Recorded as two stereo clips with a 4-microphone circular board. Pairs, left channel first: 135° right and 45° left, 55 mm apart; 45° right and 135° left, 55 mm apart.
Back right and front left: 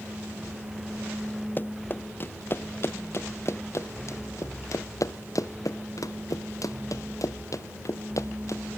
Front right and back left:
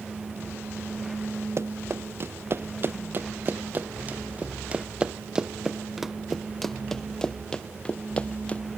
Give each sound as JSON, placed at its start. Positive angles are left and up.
{"t": 1.6, "sound": "running footsteps", "azimuth_deg": 170}